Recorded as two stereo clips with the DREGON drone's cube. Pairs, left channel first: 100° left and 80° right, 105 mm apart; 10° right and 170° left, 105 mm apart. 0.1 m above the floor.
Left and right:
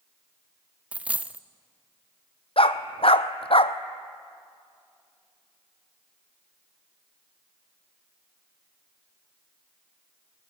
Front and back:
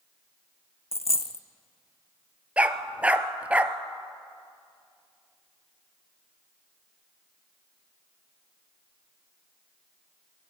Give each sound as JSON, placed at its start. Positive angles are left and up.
{"t": 0.9, "sound": "a dropped coin", "azimuth_deg": 0, "distance_m": 0.6}
{"t": 2.6, "sound": "a dog barking", "azimuth_deg": 95, "distance_m": 0.7}